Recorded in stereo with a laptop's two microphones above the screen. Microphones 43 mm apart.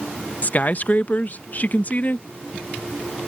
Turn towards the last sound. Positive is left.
turn(degrees=40)  # may be behind; listen again after turning